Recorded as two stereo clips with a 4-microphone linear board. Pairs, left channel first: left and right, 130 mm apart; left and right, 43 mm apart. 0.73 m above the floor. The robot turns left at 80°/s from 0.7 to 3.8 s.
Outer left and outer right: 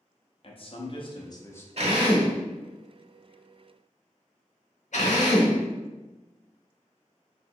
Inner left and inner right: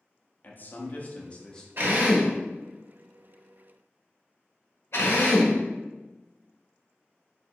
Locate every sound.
0.4 s a man speaking: 95° left, 0.6 m; by 1.7 s 20° left, 0.6 m
1.8 s a drill: 55° right (ahead or behind), 0.8 m; by 7.5 s 70° left (ahead or behind), 0.8 m